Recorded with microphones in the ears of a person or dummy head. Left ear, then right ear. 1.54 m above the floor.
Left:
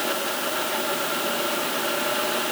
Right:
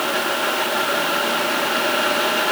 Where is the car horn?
No car horn in this recording.